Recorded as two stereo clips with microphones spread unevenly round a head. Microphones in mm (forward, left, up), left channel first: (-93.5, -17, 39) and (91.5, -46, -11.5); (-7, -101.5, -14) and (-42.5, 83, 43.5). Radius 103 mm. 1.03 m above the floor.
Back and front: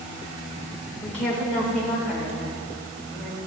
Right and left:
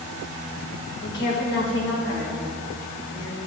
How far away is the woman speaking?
About 4.5 m.